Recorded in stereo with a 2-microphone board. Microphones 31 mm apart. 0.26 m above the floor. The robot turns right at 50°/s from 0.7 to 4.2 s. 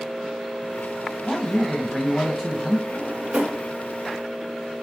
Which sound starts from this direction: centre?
A man speaking, at 1.2 s.